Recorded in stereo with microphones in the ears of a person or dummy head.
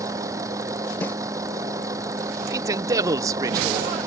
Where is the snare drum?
Centre (ahead or behind).